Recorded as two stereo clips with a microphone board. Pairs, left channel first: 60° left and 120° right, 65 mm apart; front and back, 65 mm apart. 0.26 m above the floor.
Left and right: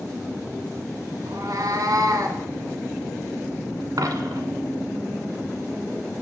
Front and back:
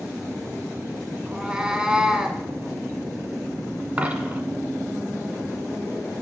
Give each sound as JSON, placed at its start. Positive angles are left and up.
{"t": 1.3, "sound": "a cat meowing", "azimuth_deg": -100, "distance_m": 0.7}
{"t": 4.0, "sound": "a dropped coin", "azimuth_deg": -115, "distance_m": 0.7}